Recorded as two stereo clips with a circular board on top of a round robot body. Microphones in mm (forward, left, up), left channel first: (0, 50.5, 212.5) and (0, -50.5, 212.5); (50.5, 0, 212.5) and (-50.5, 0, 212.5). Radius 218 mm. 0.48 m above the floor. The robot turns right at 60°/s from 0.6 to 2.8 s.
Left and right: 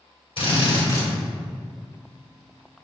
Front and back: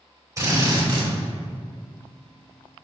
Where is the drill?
120° left, 2.5 m; by 1.1 s 150° left, 2.5 m.